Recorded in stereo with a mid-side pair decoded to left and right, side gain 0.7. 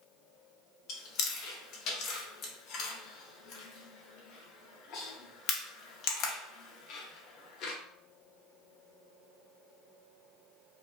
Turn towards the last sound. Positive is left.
turn(degrees=55)